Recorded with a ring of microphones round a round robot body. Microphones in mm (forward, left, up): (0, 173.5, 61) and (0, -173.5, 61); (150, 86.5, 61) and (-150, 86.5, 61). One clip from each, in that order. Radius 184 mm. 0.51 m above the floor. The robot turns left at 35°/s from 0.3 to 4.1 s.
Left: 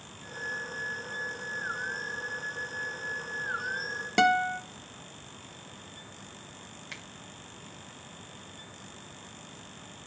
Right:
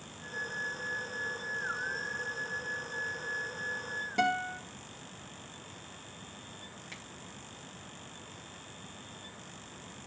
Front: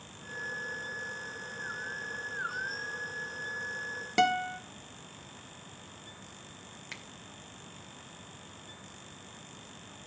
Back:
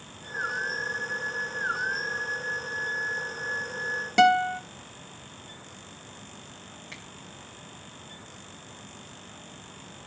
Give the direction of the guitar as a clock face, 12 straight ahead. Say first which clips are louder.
Left 7 dB, back 7 dB; 9 o'clock.